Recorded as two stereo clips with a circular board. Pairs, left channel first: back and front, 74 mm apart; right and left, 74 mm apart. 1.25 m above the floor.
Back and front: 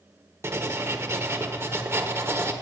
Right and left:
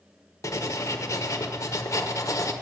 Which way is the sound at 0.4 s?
50° right.